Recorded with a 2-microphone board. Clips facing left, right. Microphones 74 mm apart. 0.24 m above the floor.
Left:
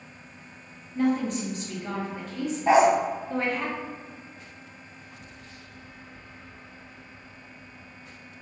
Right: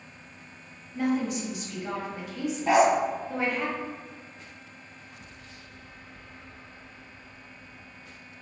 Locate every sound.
0.9 s a woman speaking: 5° right (ahead or behind), 1.1 m
2.7 s a dog barking: 25° left (ahead or behind), 0.5 m